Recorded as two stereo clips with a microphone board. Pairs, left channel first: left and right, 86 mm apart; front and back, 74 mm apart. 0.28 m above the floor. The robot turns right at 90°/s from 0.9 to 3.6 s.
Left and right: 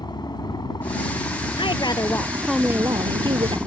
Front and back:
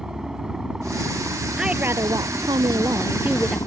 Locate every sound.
0.0 s a helicopter: 100° left; by 3.7 s 15° right
1.6 s a woman speaking: 95° left; by 3.6 s 85° right